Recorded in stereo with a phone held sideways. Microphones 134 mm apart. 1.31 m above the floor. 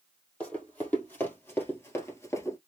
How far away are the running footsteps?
About 2 m.